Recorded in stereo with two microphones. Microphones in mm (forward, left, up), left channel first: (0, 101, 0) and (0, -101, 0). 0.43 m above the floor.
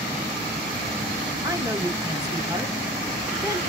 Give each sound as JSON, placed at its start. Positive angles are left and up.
{"t": 1.4, "sound": "a woman speaking", "side_deg": -20, "distance_m": 0.8}